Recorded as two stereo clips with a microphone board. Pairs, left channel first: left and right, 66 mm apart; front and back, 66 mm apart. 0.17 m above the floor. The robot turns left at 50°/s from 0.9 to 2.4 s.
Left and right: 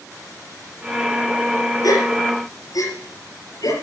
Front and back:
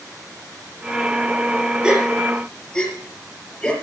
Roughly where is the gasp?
Left.